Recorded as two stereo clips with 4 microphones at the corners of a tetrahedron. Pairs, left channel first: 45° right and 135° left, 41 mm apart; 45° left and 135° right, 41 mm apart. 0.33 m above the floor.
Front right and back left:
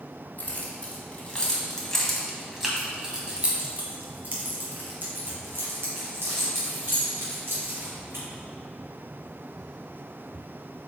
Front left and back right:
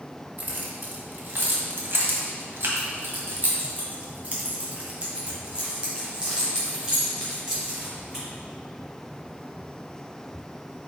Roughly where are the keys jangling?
Right.